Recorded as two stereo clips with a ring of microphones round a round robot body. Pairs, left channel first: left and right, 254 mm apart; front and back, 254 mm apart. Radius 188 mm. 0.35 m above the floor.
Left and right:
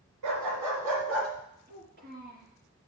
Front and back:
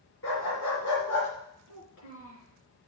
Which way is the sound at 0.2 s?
50° right.